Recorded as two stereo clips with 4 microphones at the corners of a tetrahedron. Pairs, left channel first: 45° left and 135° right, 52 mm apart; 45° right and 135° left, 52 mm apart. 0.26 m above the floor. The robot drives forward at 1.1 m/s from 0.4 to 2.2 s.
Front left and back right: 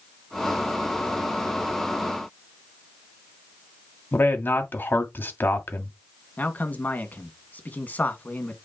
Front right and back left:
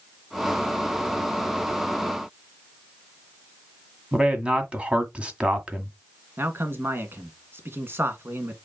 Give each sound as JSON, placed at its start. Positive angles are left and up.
{"t": 4.1, "sound": "a man speaking", "azimuth_deg": 75, "distance_m": 1.9}
{"t": 6.4, "sound": "a man speaking", "azimuth_deg": 100, "distance_m": 2.0}